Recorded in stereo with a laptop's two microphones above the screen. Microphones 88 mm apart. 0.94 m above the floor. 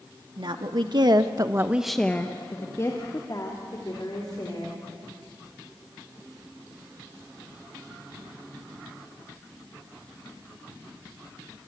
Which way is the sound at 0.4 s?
65° right (ahead or behind).